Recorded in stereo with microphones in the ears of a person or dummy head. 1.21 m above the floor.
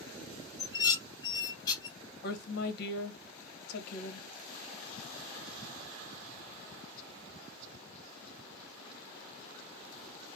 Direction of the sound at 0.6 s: 30° left (ahead or behind).